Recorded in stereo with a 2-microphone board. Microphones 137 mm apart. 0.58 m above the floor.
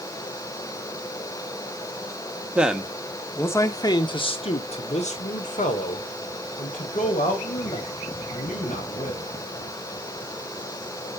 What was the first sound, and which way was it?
A man speaking, 10° right (ahead or behind).